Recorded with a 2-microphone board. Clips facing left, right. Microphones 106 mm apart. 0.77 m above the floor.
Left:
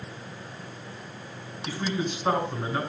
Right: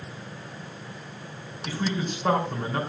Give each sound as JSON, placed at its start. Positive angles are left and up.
{"t": 1.6, "sound": "a man speaking", "side_deg": -55, "distance_m": 4.5}